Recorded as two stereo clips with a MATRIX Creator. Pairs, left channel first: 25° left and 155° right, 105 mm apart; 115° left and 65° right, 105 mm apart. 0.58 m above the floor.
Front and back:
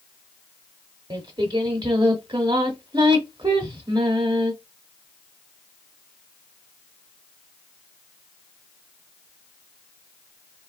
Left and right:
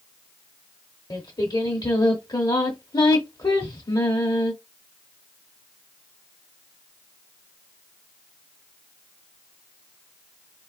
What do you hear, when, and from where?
1.1 s singing: 160° left, 0.9 m